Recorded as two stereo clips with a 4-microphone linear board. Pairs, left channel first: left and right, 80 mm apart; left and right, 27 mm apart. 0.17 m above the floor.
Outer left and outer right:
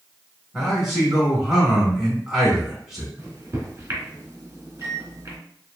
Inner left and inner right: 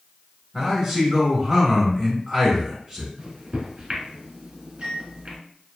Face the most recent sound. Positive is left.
turn(degrees=-35)  # may be behind; listen again after turning